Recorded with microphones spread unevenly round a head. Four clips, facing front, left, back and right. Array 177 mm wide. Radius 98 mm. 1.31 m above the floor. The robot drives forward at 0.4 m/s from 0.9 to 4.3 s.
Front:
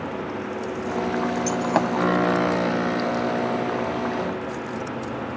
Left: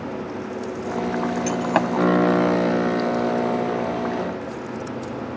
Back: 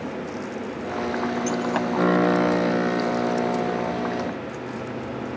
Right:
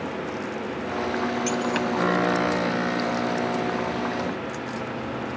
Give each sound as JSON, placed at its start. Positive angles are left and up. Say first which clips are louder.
{"t": 1.5, "sound": "breaking glass", "louder": "left 4 dB, front 2 dB", "azimuth_deg": 40}